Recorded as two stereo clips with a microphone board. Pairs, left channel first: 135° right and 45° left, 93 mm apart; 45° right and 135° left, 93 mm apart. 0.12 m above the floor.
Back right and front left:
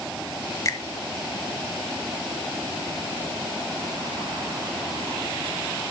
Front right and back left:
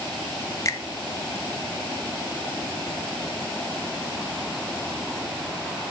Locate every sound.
0.7 s a finger snap: 90° right, 1.3 m